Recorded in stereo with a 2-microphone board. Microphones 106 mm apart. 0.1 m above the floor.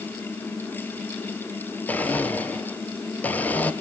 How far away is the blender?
About 1.5 m.